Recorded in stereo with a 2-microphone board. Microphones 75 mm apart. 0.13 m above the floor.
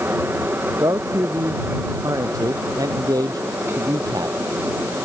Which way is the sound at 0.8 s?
50° right (ahead or behind).